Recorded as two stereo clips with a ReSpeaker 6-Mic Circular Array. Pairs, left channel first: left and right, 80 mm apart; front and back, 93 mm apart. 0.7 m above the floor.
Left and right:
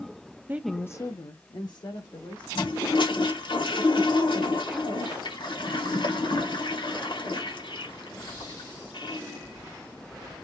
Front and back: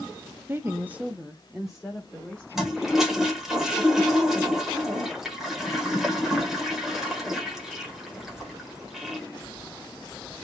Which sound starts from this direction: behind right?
A woman speaking, at 0.5 s.